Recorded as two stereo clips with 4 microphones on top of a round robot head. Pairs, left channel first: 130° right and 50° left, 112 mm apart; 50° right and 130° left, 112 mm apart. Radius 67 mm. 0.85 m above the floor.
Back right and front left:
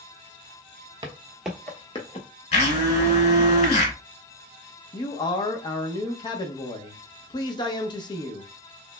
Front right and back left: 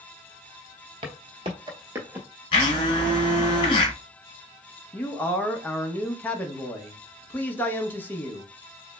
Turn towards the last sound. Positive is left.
turn(degrees=-115)